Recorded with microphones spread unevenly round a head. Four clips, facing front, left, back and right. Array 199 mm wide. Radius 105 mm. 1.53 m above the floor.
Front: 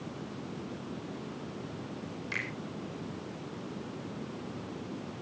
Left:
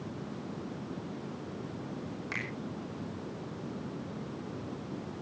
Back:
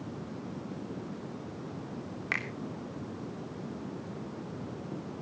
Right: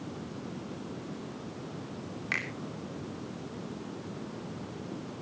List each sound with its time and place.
2.3 s a finger snap: 175° left, 3 m